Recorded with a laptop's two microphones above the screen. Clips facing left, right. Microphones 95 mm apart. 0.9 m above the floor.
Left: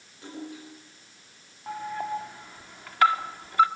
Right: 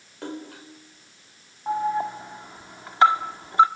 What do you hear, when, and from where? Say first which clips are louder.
0.2 s a splash: right 3 dB; 70° right (ahead or behind), 4.5 m
1.7 s an alarm: right 7 dB; 25° right (ahead or behind), 1.8 m